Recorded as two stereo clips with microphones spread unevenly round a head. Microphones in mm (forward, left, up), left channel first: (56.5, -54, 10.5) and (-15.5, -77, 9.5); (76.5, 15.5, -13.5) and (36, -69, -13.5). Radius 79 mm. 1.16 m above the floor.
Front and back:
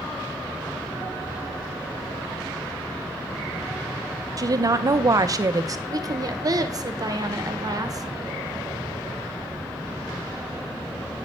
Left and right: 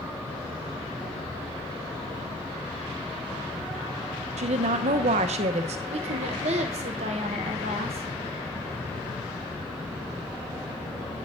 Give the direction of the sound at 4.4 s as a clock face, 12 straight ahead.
4 o'clock.